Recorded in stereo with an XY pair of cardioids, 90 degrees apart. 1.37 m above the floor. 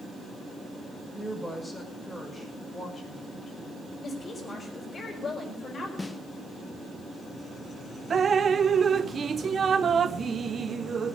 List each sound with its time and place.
1.1 s a woman speaking: 5° right, 5.5 m; by 3.8 s 20° left, 5 m
4.0 s a woman speaking: 45° left, 5 m
6.0 s a snare drum: 25° left, 1.0 m
8.1 s dripping: 45° right, 0.6 m